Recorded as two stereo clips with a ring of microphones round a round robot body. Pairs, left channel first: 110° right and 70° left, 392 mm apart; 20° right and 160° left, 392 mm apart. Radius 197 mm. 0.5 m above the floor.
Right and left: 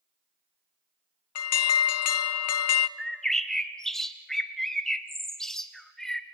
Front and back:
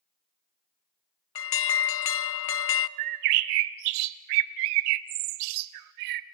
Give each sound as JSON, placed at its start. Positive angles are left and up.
{"t": 1.4, "sound": "an alarm", "azimuth_deg": -70, "distance_m": 0.6}
{"t": 3.0, "sound": "a bird", "azimuth_deg": 160, "distance_m": 0.8}